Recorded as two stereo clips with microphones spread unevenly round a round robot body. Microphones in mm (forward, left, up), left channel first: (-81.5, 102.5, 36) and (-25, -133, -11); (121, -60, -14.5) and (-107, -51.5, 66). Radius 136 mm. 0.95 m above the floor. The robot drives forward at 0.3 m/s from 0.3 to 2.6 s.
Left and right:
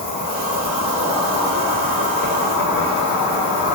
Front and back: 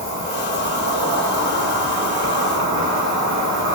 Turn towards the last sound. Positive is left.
turn(degrees=95)